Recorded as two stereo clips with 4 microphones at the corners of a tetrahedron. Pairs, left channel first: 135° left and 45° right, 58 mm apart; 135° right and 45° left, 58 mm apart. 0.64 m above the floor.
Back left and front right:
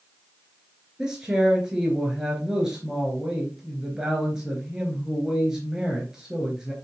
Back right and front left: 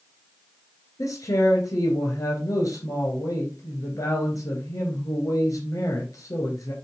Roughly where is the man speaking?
Behind right.